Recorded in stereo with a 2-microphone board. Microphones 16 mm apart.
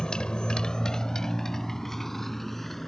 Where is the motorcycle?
70° left (ahead or behind); by 2.9 s 15° left (ahead or behind).